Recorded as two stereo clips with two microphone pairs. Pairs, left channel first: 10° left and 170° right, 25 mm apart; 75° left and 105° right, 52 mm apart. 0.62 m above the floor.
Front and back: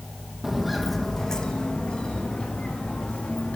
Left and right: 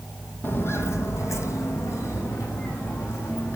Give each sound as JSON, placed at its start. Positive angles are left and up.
{"t": 0.4, "sound": "footsteps", "azimuth_deg": 110, "distance_m": 1.5}